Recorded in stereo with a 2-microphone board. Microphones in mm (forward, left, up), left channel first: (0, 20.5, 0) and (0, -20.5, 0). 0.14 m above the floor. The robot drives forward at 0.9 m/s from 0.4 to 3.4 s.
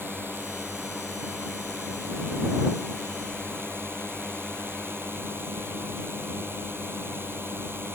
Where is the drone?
60° right (ahead or behind); by 8.0 s 70° right (ahead or behind).